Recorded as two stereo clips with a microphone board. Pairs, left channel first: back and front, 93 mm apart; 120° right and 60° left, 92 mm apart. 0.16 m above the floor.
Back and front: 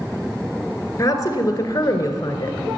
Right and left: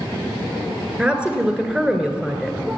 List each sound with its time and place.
1.0 s a woman speaking: 135° left, 1.9 m